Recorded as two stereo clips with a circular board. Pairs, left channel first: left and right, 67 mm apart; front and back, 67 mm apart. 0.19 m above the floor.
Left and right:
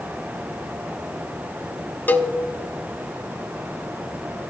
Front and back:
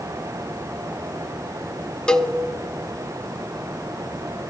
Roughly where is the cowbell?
Ahead left.